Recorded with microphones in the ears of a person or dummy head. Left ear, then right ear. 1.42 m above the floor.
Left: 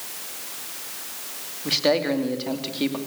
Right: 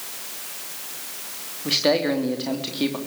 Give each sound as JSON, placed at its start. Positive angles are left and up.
{"t": 1.6, "sound": "a man speaking", "side_deg": 0, "distance_m": 3.0}